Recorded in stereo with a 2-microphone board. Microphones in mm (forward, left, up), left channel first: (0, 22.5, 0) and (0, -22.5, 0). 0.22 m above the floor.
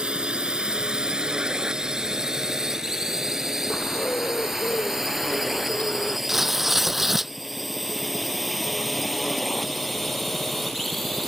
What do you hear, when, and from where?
0.0 s a drone: 25° right (ahead or behind); by 11.3 s centre (ahead or behind)
3.7 s a bird: 35° left (ahead or behind)
6.3 s tearing paper: 5° right (ahead or behind)